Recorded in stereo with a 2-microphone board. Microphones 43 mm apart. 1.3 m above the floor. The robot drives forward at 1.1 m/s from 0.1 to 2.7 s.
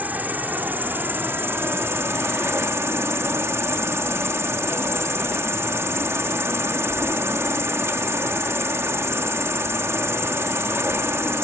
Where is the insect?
45° right (ahead or behind); by 11.4 s 85° right.